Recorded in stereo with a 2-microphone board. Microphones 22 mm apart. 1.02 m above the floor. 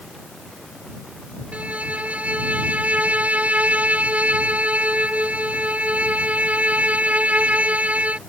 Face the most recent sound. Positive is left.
turn(degrees=-80)